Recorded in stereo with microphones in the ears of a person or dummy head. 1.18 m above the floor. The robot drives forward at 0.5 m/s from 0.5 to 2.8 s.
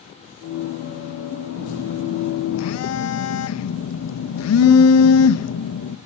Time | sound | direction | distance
1.5 | a phone buzzing | 45° left (ahead or behind) | 0.9 m